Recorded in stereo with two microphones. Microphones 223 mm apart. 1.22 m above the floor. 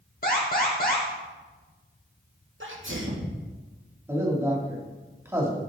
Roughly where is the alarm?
Left.